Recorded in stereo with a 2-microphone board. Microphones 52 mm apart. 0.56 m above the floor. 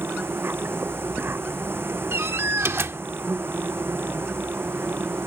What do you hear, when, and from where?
0.0 s an insect: 50° right (ahead or behind)
2.1 s a door slam: 55° right (ahead or behind)